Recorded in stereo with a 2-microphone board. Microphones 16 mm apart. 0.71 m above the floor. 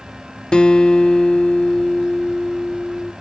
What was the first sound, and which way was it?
A guitar, 85° left.